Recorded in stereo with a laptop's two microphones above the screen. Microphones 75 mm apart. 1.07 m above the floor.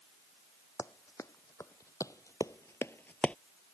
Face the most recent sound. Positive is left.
turn(degrees=15)  # may be behind; listen again after turning